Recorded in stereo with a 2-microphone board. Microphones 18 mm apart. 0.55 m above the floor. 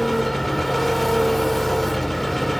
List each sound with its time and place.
0.0 s an engine running: 5° left (ahead or behind), 1.4 m